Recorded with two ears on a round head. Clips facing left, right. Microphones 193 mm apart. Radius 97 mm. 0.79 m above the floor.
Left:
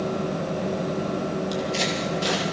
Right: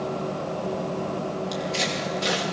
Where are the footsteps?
Centre (ahead or behind), 6.5 m.